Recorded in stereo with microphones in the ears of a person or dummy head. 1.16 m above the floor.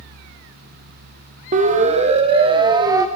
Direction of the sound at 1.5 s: 40° right (ahead or behind).